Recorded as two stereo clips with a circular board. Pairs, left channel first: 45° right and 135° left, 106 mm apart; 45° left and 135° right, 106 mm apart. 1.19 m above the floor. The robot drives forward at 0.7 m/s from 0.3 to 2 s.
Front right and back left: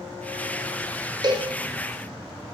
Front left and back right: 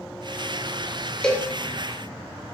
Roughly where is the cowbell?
Behind left.